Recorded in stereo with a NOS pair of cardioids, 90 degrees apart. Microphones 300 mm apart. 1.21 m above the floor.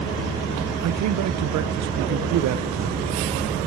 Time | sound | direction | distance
0.8 | a man speaking | 65° right | 0.6 m